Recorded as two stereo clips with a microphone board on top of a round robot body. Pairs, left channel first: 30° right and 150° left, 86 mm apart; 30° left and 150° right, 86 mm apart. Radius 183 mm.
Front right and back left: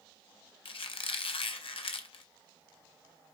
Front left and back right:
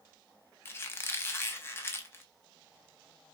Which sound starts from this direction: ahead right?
A squeak, at 0.7 s.